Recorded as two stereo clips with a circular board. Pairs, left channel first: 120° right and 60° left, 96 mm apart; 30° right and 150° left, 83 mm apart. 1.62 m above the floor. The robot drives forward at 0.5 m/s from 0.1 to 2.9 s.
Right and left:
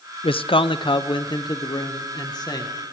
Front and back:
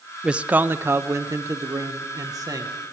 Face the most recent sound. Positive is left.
turn(degrees=-165)